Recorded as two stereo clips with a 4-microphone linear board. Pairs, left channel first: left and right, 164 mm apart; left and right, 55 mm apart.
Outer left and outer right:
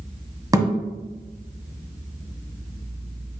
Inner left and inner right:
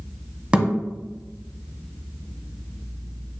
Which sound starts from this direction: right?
A thud, at 0.5 s.